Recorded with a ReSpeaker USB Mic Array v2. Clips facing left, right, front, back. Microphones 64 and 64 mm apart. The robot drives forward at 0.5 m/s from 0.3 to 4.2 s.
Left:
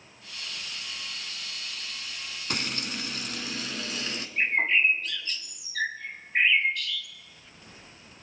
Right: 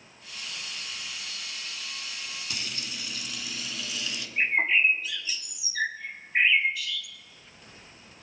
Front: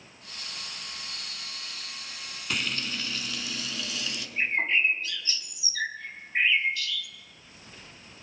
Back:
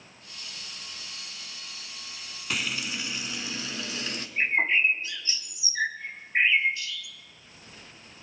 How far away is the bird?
About 1.4 m.